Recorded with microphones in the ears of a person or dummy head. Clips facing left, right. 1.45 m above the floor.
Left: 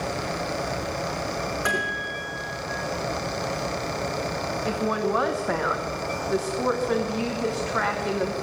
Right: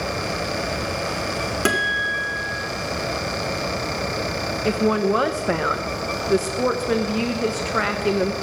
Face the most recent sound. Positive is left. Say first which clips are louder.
# right 7 dB
turn(degrees=-40)  # may be behind; listen again after turning